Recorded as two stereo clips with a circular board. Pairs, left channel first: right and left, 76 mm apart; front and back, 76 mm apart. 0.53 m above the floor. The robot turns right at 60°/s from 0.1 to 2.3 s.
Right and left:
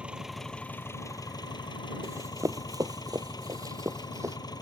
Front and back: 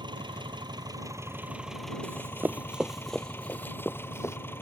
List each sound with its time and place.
0.0 s an engine running: 165° left; by 4.6 s 65° right
2.0 s running footsteps: 120° left; by 4.4 s 45° left